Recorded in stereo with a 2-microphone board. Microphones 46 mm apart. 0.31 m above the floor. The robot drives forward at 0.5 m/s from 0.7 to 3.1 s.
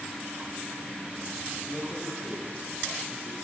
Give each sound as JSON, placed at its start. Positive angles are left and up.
{"t": 1.7, "sound": "a man speaking", "side_deg": 30, "distance_m": 8.5}